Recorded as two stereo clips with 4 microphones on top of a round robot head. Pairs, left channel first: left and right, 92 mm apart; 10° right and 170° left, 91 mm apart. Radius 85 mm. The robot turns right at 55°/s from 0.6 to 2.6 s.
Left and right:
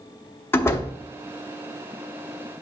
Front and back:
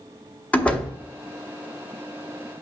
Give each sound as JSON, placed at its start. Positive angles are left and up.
{"t": 0.5, "sound": "a door slam", "azimuth_deg": 50, "distance_m": 0.9}